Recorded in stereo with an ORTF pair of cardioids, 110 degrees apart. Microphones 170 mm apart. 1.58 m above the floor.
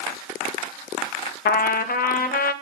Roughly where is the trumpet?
Ahead left.